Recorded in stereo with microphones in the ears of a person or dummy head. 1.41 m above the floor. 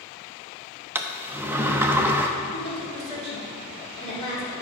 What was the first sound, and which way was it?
A sliding door, 10° right (ahead or behind).